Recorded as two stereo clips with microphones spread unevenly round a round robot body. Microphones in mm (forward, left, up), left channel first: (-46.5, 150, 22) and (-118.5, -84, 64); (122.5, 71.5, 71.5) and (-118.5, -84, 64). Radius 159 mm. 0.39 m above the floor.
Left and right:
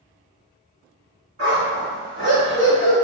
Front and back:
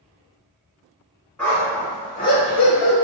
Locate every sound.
1.4 s a dog barking: 55° right, 1.6 m; by 3.0 s 35° left, 0.6 m